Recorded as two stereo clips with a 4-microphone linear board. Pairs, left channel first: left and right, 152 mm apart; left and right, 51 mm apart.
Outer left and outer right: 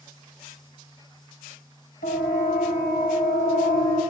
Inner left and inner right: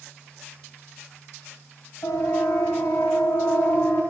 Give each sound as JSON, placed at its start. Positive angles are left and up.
{"t": 2.0, "sound": "a siren", "side_deg": 80, "distance_m": 7.0}